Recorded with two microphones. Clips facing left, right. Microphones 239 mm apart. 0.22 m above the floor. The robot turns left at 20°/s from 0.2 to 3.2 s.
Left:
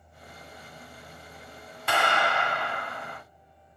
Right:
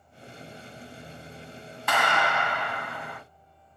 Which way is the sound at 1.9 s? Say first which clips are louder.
Even; 30° left (ahead or behind).